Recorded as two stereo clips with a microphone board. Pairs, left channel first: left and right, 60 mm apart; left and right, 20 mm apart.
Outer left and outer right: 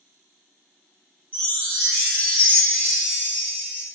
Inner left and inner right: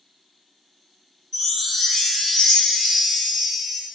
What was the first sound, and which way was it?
A chime, 35° left (ahead or behind).